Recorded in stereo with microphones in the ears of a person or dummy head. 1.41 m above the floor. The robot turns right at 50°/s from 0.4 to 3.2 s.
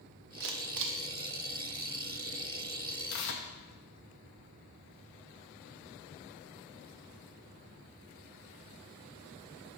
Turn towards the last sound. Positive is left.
turn(degrees=65)  # may be behind; listen again after turning